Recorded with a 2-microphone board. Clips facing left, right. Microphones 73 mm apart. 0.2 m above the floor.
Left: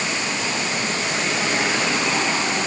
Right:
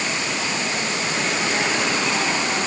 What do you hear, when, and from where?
Only background noise.